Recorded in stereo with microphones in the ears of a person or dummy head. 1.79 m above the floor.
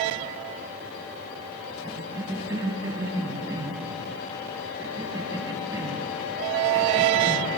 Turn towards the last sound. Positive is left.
turn(degrees=-15)  # may be behind; listen again after turning